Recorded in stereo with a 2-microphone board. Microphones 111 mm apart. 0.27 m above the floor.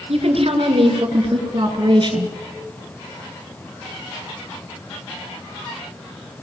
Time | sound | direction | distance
0.1 | a woman speaking | 60° right (ahead or behind) | 3.5 m